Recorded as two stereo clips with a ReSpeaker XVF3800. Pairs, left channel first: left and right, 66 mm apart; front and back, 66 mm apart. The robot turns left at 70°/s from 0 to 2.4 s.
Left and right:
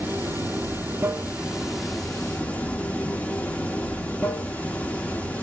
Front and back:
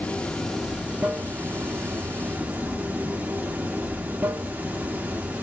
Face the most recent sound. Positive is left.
turn(degrees=140)